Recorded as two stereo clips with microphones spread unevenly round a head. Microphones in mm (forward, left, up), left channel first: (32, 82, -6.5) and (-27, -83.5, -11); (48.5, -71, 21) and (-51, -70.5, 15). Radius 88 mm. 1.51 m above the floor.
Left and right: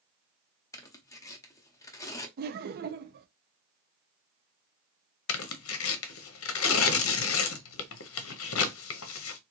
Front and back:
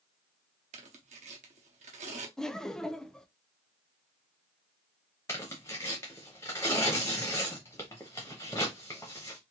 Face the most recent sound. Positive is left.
turn(degrees=75)